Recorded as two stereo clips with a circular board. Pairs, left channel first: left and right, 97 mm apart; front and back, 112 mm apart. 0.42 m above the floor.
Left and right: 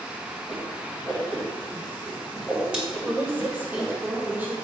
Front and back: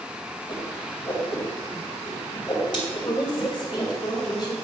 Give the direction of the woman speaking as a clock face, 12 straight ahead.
1 o'clock.